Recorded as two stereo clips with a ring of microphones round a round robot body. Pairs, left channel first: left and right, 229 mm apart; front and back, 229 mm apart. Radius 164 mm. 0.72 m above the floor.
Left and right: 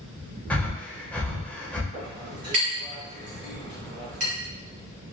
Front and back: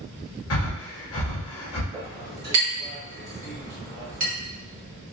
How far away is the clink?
About 1.7 m.